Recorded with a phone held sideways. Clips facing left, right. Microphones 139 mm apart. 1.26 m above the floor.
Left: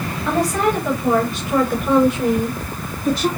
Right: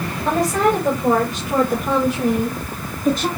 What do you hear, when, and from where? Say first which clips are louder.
0.2 s a woman speaking: right 1 dB; 45° right (ahead or behind), 6 m; by 3.3 s 50° right (ahead or behind), 2 m